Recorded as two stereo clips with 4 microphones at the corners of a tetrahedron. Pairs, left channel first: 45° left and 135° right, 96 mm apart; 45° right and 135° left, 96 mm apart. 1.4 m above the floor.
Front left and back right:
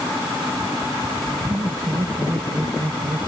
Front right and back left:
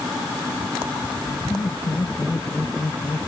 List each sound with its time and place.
1.5 s laughter: 90° right; by 3.3 s 95° right